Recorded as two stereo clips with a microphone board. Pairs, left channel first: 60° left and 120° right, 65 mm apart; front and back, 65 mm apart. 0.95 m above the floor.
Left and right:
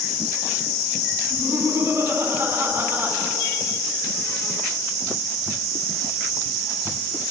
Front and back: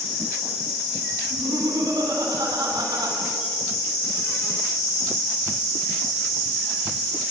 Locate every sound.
1.3 s laughter: 170° right, 8.5 m; by 3.2 s straight behind, 9.5 m